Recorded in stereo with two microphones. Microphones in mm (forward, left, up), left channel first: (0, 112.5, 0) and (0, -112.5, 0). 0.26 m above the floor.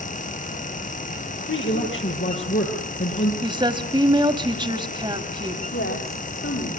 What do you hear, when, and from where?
1.5 s a man speaking: 65° left (ahead or behind), 7.5 m
3.4 s a woman speaking: 20° right (ahead or behind), 1.3 m
5.7 s a woman speaking: 85° left, 9 m